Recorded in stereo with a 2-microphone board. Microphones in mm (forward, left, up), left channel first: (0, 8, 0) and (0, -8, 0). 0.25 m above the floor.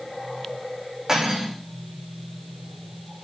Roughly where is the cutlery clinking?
Right.